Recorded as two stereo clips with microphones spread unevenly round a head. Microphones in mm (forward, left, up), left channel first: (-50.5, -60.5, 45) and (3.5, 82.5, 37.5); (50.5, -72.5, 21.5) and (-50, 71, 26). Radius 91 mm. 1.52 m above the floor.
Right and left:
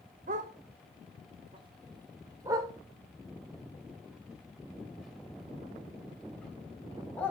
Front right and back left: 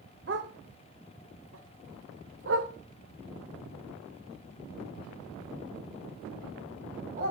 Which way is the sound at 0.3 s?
105° left.